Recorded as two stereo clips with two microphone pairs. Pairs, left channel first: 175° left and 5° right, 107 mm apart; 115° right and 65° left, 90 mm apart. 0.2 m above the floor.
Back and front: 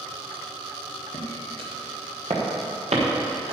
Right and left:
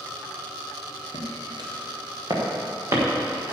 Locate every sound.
1.1 s footsteps: 35° left, 4.5 m; by 3.5 s straight ahead, 5.5 m